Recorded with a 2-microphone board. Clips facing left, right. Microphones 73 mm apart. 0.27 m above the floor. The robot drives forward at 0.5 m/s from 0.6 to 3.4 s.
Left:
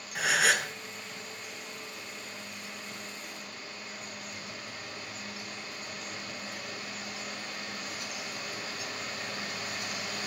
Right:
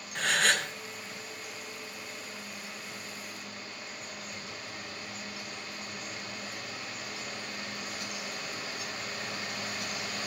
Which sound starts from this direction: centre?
A gasp, at 0.1 s.